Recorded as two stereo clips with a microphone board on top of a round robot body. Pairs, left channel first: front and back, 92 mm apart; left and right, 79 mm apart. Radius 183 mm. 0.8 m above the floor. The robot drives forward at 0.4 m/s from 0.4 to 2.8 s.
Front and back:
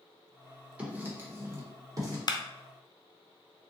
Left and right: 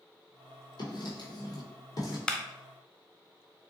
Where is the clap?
15° left, 0.6 m.